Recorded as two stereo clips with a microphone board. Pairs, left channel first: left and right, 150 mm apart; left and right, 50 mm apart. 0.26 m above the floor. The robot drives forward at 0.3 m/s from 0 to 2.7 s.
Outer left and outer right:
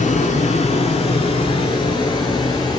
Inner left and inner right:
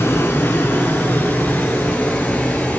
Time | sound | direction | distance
0.0 | running water | 60° left (ahead or behind) | 0.8 m